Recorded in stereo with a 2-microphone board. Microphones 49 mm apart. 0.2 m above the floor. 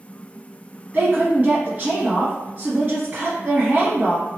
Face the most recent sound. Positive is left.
turn(degrees=-30)  # may be behind; listen again after turning